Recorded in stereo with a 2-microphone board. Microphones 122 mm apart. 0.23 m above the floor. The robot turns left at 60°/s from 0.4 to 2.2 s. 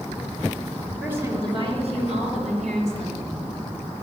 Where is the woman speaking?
10° right, 3.5 m; by 4.0 s 85° right, 3.5 m.